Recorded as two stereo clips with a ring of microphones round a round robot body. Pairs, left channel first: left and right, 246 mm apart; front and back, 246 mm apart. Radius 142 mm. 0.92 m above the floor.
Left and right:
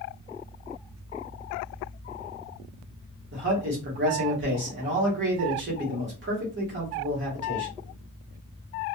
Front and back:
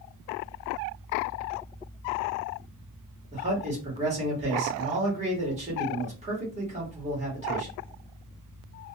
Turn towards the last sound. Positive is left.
turn(degrees=-120)